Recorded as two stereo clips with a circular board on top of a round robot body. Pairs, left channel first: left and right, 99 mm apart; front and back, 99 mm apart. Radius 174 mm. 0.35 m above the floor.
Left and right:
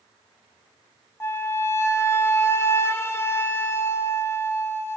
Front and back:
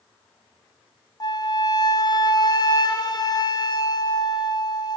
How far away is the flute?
About 0.6 m.